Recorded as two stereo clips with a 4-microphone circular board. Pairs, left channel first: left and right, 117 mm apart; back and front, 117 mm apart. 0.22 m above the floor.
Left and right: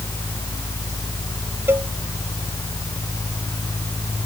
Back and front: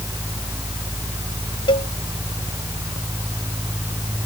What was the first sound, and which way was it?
A cowbell, 155° right.